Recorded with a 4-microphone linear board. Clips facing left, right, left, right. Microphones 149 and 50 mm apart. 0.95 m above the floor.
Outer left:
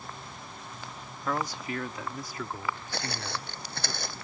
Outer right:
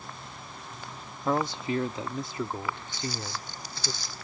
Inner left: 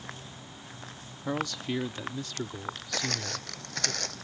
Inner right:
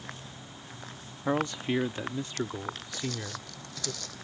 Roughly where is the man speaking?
Right.